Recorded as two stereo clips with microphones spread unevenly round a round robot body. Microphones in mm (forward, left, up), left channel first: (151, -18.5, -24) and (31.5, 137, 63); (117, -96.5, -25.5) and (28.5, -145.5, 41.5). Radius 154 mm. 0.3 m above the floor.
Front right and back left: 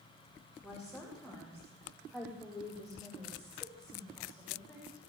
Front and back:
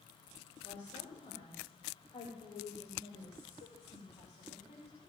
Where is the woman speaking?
35° left, 8.5 m.